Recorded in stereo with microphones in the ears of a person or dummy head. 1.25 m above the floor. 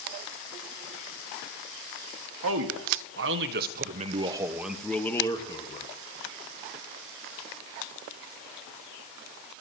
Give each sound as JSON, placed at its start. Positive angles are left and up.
{"t": 2.4, "sound": "a man speaking", "side_deg": -80, "distance_m": 1.5}